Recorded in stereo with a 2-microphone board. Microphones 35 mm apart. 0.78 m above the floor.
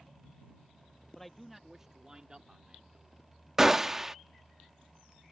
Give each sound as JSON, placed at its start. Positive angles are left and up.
{"t": 1.1, "sound": "a man speaking", "side_deg": 10}
{"t": 3.6, "sound": "a gunshot", "side_deg": -10}